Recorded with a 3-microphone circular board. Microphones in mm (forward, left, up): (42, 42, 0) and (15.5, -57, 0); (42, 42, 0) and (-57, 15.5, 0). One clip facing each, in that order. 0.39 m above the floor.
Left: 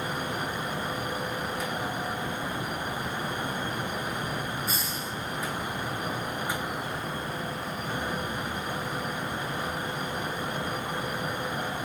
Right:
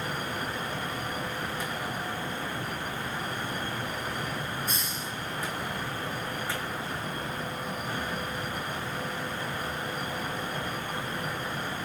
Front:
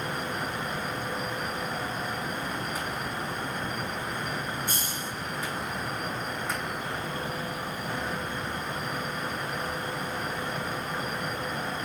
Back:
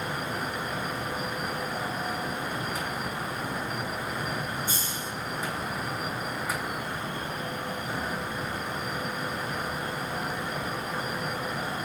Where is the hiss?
15° right, 1.8 m.